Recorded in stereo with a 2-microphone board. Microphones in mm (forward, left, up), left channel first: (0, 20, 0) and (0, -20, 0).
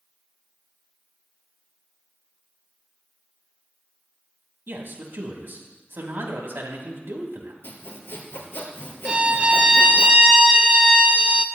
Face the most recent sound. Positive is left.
turn(degrees=-25)  # may be behind; listen again after turning